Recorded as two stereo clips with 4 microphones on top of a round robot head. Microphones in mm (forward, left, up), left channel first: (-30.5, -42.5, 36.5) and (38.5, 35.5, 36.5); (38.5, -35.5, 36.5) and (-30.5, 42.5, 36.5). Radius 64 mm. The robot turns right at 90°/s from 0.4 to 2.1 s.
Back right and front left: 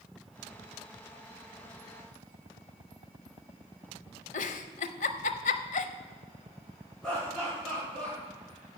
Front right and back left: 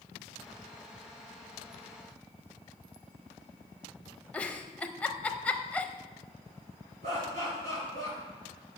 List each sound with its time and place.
4.3 s a giggle: 130° right, 0.6 m
7.0 s laughter: 145° left, 5 m